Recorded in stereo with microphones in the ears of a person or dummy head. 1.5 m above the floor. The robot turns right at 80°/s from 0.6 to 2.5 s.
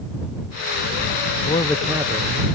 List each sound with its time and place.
1.5 s a man speaking: 155° left; by 2.5 s 125° right